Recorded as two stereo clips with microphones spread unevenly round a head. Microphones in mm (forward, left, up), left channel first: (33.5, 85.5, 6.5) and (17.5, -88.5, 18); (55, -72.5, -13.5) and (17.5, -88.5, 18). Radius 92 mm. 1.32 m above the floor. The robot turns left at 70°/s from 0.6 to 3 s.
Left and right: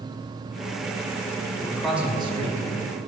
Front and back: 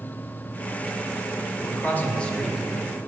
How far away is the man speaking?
About 1.8 m.